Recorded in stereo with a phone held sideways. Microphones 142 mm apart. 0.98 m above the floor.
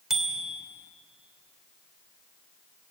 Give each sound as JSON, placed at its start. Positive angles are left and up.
{"t": 0.1, "sound": "a bicycle bell", "side_deg": -5, "distance_m": 2.5}